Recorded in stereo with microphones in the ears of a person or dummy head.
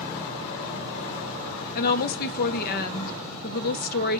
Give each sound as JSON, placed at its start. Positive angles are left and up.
{"t": 1.8, "sound": "a woman speaking", "side_deg": 50, "distance_m": 0.5}